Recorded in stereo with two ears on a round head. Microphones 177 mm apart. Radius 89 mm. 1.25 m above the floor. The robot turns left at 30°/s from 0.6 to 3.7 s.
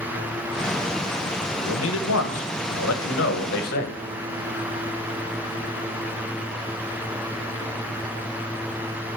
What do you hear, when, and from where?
1.6 s a man speaking: 115° left, 1.2 m; by 4.0 s 50° left, 1.2 m